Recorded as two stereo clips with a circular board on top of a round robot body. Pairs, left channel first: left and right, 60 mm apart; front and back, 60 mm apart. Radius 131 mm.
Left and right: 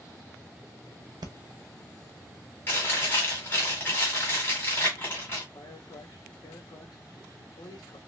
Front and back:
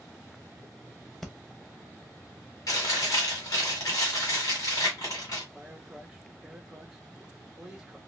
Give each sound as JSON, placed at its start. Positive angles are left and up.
{"t": 1.2, "sound": "breathing", "azimuth_deg": -85, "distance_m": 0.7}
{"t": 2.7, "sound": "chewing", "azimuth_deg": 30, "distance_m": 1.7}
{"t": 5.5, "sound": "a man speaking", "azimuth_deg": 100, "distance_m": 1.0}